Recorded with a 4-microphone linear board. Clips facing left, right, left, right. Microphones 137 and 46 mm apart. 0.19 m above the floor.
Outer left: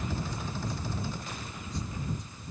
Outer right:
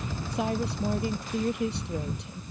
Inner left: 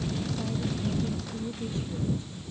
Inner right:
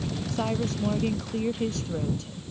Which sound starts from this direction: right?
A woman speaking, at 0.3 s.